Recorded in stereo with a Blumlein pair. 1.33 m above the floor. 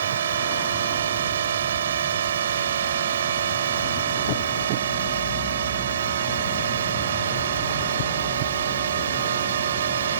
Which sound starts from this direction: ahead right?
A drone, at 0.0 s.